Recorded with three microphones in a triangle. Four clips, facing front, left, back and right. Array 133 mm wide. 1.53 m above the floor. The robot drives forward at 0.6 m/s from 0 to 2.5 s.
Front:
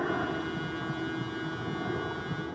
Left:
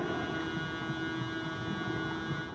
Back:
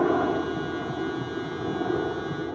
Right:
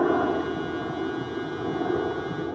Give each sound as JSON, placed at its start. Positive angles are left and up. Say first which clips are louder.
{"t": 0.0, "sound": "a helicopter", "louder": "right 12 dB, back 8 dB", "azimuth_deg": -130}